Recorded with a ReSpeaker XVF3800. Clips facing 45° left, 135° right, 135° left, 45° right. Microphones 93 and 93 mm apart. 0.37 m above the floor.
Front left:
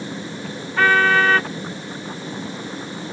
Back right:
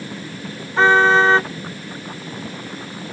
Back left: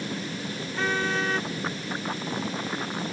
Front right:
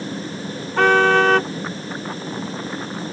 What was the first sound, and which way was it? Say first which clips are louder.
A car horn: back right 3 dB, front right 13 dB; 65° right.